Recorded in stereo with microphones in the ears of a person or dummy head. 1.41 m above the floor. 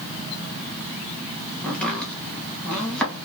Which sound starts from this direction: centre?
Chopping, at 1.6 s.